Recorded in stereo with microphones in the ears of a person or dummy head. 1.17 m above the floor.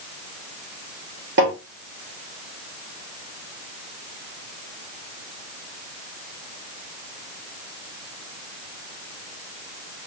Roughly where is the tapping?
Right.